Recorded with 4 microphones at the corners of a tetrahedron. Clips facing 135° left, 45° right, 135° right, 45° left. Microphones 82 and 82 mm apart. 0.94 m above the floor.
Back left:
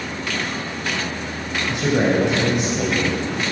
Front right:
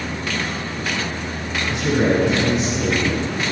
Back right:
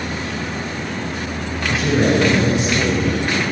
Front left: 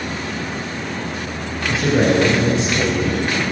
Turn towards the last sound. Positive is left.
turn(degrees=100)